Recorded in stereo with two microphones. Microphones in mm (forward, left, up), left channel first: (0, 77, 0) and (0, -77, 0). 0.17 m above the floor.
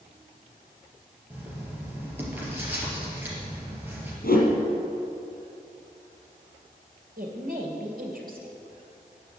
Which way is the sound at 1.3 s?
15° right (ahead or behind).